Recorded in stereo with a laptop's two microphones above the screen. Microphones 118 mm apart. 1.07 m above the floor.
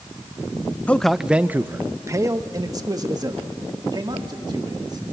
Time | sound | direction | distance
0.9 | a man speaking | 15° left (ahead or behind) | 0.5 m